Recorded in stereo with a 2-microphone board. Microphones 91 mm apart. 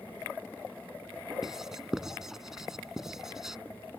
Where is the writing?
5° right (ahead or behind).